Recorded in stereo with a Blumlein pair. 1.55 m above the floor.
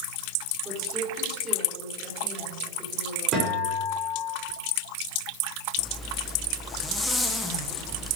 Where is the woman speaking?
10° right, 5.5 m.